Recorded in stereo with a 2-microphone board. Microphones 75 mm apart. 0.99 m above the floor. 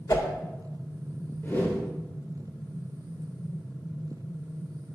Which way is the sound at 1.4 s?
25° left (ahead or behind).